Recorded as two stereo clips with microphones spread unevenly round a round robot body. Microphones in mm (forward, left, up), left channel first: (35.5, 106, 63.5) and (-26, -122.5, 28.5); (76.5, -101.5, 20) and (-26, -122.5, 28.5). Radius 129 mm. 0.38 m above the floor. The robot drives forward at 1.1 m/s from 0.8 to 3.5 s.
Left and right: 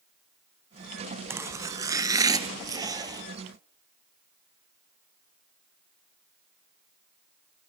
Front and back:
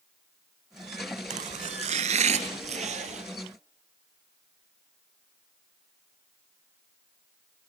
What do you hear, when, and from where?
1.3 s chopping: 175° left, 0.6 m; by 3.2 s straight behind, 2.5 m